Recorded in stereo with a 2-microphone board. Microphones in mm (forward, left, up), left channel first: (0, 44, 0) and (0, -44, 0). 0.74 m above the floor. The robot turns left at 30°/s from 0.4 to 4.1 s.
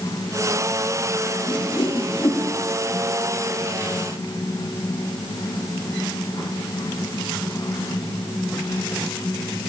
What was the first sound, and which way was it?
A whoosh, 60° left (ahead or behind).